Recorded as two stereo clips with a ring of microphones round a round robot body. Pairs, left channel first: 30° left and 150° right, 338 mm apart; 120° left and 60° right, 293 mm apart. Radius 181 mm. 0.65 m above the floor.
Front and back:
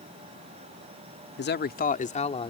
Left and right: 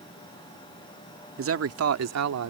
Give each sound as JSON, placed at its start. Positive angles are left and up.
{"t": 1.4, "sound": "a man speaking", "azimuth_deg": -25}